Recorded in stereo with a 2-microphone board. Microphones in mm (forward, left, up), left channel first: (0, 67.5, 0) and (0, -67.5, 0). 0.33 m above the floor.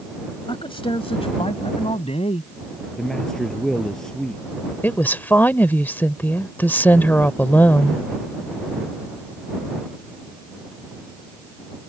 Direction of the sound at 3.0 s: 5° left (ahead or behind).